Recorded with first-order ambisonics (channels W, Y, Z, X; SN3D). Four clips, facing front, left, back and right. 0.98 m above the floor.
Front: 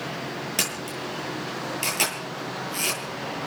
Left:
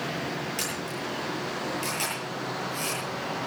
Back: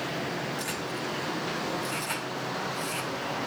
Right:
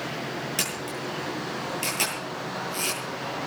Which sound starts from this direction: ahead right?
A camera shutter, at 0.6 s.